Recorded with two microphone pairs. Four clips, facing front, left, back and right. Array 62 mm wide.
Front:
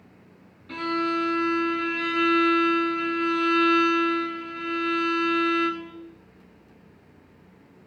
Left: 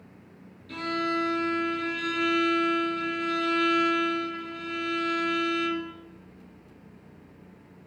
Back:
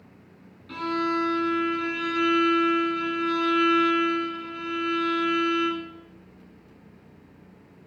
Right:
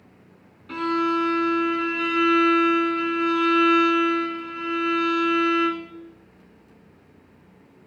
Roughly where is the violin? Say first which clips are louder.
Right 6 dB, even; right.